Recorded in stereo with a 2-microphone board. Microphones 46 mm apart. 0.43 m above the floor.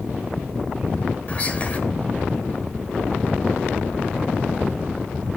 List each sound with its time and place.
1.3 s whispering: 30° left (ahead or behind), 1.6 m